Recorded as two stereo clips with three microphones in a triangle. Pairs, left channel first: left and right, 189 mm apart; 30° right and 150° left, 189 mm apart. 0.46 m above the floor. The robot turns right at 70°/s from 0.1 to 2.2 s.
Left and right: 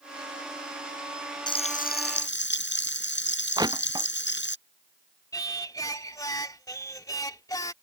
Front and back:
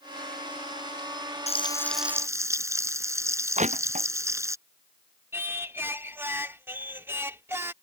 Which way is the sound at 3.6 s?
160° right.